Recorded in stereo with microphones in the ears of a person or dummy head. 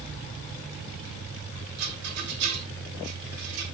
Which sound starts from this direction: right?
A rattle, at 1.8 s.